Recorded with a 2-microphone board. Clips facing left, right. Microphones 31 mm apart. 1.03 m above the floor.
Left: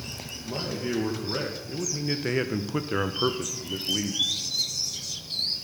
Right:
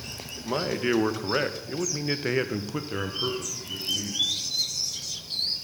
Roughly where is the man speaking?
Right.